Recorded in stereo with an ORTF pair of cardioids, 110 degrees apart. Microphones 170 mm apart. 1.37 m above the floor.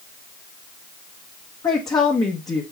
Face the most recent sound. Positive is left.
turn(degrees=20)